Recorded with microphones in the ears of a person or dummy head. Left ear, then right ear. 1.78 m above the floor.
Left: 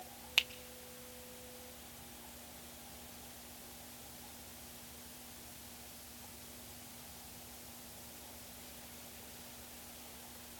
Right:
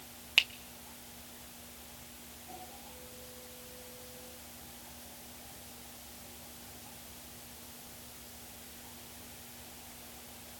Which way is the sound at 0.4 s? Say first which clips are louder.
Right 5 dB; centre (ahead or behind).